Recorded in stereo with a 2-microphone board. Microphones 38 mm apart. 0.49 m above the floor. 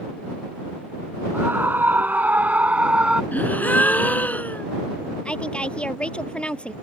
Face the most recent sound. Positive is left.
turn(degrees=30)  # may be behind; listen again after turning